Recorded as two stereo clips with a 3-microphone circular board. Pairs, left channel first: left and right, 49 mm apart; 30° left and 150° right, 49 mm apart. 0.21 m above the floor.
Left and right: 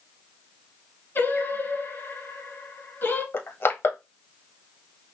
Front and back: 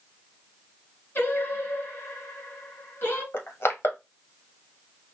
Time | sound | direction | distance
1.1 | singing | 60° left | 1.9 m
3.3 | crushing | 65° left | 1.3 m